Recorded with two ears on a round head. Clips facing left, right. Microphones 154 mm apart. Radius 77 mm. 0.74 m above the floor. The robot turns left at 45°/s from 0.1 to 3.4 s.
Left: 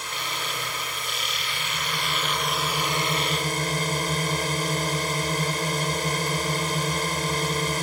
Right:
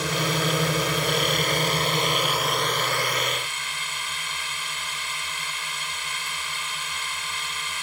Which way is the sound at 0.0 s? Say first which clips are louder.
Right 9 dB; 70° right.